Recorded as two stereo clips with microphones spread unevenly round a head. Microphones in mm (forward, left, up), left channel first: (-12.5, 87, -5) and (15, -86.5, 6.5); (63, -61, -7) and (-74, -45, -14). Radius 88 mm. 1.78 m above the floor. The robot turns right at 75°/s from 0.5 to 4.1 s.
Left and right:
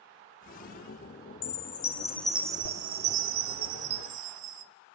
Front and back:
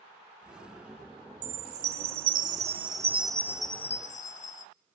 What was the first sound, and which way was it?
A chime, 125° left.